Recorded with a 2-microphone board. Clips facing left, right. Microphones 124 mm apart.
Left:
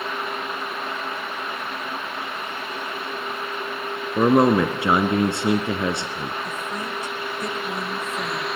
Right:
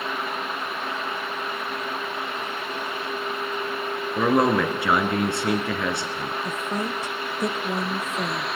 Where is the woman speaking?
30° right (ahead or behind), 1.5 m.